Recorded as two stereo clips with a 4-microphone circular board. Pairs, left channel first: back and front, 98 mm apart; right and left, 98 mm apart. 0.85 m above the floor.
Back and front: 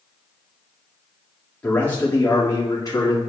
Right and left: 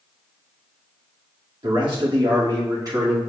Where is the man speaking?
105° left, 2.5 m; by 3.2 s 140° left, 2.5 m.